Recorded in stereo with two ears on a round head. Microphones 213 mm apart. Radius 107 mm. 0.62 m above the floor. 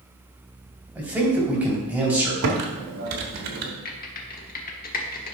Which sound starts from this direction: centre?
A man speaking, at 0.9 s.